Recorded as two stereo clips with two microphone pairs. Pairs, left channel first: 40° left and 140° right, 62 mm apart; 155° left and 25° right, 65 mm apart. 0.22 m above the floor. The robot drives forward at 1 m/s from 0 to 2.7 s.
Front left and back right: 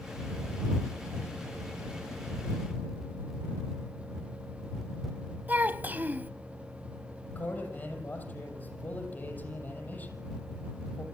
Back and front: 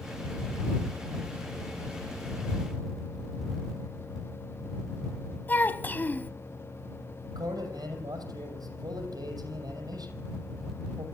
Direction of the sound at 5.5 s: 170° right.